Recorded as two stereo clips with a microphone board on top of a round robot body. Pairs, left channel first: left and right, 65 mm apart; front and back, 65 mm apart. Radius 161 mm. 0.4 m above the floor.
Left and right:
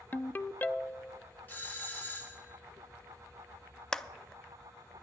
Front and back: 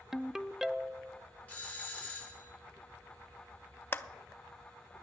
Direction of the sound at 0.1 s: 105° left.